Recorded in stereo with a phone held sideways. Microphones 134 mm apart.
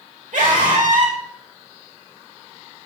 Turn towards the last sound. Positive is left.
turn(degrees=-75)  # may be behind; listen again after turning